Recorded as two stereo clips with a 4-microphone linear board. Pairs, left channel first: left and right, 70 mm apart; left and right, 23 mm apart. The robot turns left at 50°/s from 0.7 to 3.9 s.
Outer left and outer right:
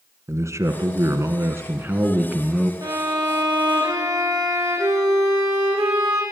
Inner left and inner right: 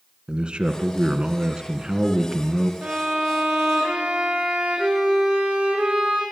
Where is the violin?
45° right, 5.5 m; by 6.2 s 100° right, 5.5 m.